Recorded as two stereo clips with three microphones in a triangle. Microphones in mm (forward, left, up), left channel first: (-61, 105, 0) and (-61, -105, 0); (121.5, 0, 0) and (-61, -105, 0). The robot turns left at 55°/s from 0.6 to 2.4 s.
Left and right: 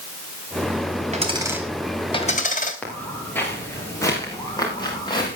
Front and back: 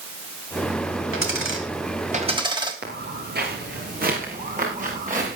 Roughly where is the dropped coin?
Behind right.